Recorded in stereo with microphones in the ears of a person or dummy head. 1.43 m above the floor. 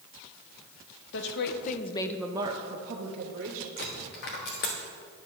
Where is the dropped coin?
40° left (ahead or behind), 1.0 m.